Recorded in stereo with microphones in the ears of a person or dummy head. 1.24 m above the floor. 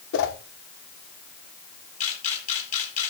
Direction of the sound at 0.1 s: 65° left (ahead or behind).